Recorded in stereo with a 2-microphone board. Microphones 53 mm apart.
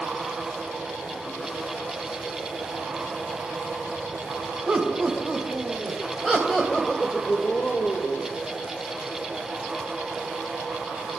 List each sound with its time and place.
4.7 s laughter: 25° right (ahead or behind), 5 m; by 8.3 s 45° left (ahead or behind), 3 m